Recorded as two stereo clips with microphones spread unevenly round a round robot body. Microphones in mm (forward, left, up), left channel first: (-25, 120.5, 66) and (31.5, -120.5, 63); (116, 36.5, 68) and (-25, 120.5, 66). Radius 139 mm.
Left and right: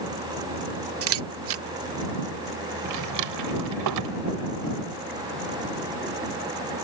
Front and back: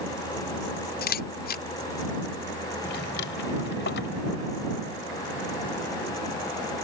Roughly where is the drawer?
Ahead right.